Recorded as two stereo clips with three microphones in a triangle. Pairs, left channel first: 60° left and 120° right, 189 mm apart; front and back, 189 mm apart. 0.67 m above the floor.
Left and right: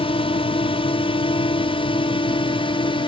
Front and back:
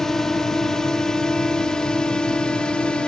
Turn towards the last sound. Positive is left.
turn(degrees=80)